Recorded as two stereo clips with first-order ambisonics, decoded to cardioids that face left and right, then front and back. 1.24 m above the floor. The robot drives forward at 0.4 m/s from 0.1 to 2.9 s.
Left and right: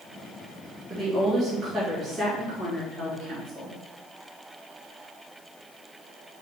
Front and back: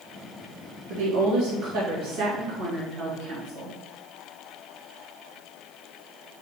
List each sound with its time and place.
0.9 s a woman speaking: 165° right, 1.0 m; by 3.8 s 170° right, 1.7 m